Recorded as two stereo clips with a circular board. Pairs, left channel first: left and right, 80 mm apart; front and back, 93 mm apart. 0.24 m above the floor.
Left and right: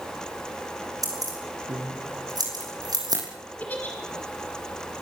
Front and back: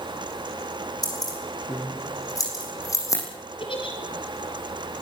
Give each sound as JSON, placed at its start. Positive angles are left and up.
{"t": 1.0, "sound": "keys jangling", "azimuth_deg": -45, "distance_m": 8.5}
{"t": 3.6, "sound": "a giggle", "azimuth_deg": 20, "distance_m": 4.5}